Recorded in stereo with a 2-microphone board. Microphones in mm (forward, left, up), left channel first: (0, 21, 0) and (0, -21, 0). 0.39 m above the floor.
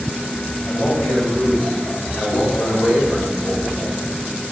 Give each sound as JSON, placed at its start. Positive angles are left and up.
{"t": 0.7, "sound": "a man speaking", "side_deg": 50, "distance_m": 1.5}